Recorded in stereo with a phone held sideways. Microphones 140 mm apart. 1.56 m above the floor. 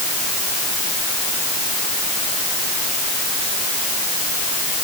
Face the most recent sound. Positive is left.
No sound to turn to.